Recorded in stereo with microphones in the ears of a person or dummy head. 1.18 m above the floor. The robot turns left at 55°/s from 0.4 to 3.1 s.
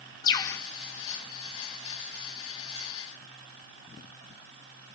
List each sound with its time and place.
0.2 s a bird: 25° left (ahead or behind), 0.6 m; by 0.6 s 15° left (ahead or behind), 0.6 m